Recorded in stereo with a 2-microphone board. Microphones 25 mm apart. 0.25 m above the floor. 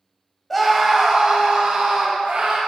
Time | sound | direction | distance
0.5 | a scream | 5° left (ahead or behind) | 1.0 m